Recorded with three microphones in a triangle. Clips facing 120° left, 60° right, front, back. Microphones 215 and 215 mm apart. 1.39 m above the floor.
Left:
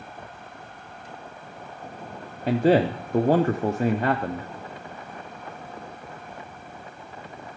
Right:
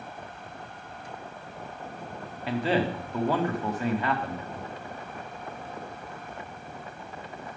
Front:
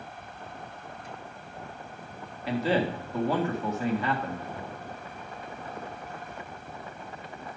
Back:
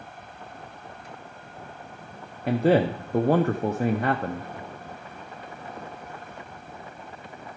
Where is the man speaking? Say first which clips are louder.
Left 7 dB, back 6 dB; 155° left, 0.6 m.